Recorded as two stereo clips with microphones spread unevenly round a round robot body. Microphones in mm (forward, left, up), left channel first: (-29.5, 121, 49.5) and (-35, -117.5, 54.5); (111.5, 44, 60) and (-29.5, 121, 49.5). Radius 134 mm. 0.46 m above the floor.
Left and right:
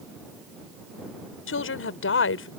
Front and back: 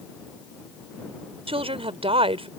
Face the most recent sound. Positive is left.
turn(degrees=105)